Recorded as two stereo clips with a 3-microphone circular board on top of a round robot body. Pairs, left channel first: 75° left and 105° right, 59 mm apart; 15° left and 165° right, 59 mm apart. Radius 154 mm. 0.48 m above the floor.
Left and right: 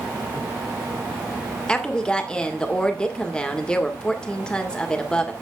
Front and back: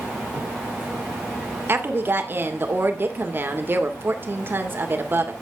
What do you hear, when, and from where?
1.7 s a woman speaking: 150° left, 2.5 m